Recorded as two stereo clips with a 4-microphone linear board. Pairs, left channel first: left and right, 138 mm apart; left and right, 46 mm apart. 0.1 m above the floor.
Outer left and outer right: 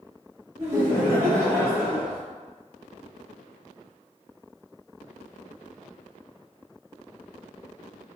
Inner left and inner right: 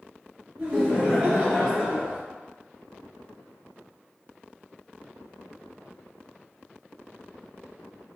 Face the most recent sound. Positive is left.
turn(degrees=-15)  # may be behind; listen again after turning